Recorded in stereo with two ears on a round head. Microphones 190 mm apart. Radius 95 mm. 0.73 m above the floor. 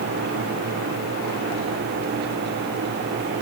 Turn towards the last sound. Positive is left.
No sound to turn to.